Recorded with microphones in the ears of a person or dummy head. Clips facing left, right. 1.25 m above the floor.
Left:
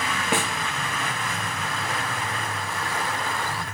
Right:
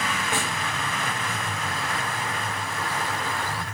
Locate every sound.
0.3 s a snare drum: 50° left (ahead or behind), 1.0 m